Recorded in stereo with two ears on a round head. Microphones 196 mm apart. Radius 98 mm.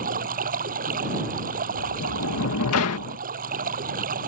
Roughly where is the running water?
Right.